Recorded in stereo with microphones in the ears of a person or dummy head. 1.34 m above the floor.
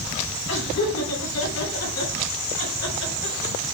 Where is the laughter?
80° left, 7.5 m.